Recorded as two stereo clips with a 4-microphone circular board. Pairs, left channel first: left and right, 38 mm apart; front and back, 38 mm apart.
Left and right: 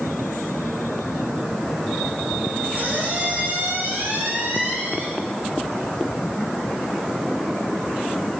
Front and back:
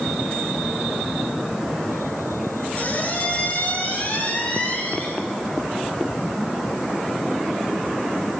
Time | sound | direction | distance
2.8 | a squeak | 45° right | 10 m